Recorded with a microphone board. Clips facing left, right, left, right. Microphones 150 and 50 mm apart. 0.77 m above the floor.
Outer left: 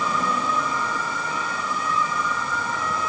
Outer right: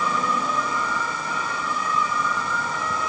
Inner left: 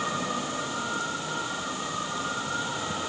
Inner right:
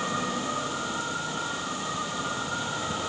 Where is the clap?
I don't hear a clap.